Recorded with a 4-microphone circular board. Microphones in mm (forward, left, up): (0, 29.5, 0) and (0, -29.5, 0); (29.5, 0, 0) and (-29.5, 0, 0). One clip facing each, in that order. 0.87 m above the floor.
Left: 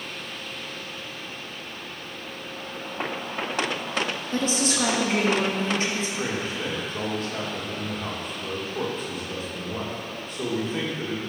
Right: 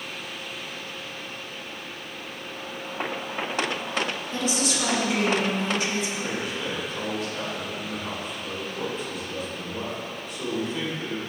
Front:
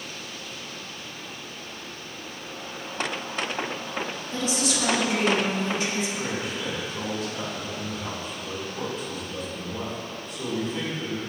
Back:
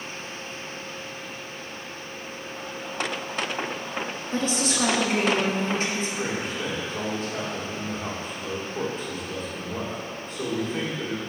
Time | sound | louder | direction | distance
4.3 | a woman speaking | left 3 dB, back 2 dB | 135° left | 1.3 m
6.2 | a man speaking | left 1 dB, back 1 dB | 135° left | 1.8 m